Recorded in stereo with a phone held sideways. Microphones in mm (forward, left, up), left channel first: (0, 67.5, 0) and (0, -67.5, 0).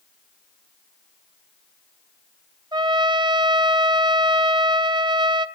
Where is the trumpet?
30° right (ahead or behind), 0.8 m.